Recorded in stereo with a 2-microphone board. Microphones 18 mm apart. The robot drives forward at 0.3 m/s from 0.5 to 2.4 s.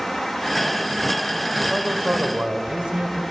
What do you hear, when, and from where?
1.7 s a man speaking: 50° right (ahead or behind), 3 m